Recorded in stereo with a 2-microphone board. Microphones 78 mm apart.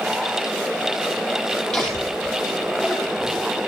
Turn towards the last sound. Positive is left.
turn(degrees=0)  # may be behind; listen again after turning